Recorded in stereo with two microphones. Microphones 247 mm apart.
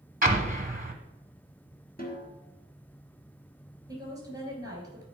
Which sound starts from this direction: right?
An explosion, at 0.2 s.